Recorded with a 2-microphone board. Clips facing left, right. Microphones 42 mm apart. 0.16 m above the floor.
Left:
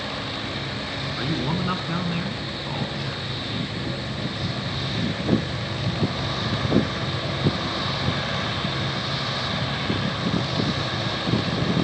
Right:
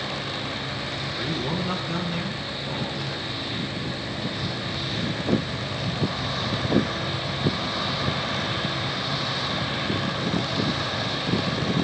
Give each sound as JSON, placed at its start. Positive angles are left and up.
{"t": 1.2, "sound": "a man speaking", "side_deg": 25, "distance_m": 2.0}